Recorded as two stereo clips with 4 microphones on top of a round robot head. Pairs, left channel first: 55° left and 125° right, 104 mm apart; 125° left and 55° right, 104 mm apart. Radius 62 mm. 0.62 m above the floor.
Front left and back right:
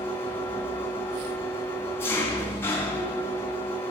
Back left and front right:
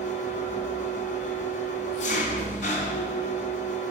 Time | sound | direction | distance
0.0 | an engine running | 125° left | 3.5 m